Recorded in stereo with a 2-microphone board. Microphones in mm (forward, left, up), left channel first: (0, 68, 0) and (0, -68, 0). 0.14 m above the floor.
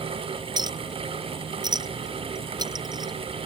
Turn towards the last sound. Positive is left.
turn(degrees=-30)  # may be behind; listen again after turning